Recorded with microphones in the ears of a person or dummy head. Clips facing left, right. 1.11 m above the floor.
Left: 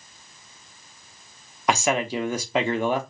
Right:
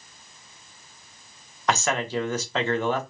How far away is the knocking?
I don't hear knocking.